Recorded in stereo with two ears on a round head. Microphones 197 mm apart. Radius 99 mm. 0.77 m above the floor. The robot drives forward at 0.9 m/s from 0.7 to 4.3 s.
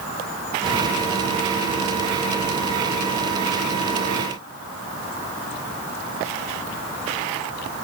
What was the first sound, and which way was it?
Only background noise.